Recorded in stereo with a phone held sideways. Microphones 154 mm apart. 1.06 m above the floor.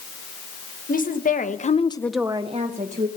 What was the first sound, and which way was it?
A woman speaking, 65° left (ahead or behind).